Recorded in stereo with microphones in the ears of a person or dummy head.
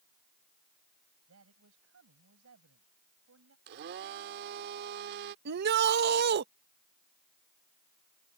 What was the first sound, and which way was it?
A man speaking, 85° right.